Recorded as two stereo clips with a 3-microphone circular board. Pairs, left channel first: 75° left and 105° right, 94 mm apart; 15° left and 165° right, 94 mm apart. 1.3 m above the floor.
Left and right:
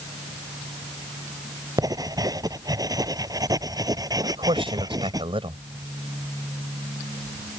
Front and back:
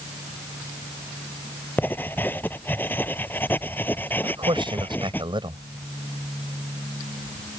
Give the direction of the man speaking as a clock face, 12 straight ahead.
4 o'clock.